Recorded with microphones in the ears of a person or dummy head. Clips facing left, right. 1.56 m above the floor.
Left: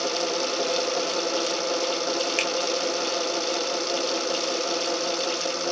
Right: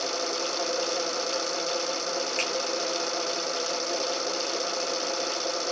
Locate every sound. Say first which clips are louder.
2.4 s a finger snap: left 4 dB; 65° left (ahead or behind), 0.8 m